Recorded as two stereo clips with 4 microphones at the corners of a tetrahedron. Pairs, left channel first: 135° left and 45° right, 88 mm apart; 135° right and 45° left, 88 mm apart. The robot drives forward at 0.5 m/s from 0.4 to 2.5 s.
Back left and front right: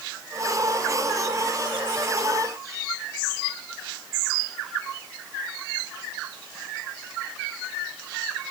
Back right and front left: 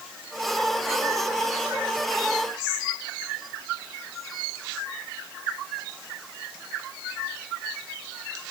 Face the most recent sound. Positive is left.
No sound to turn to.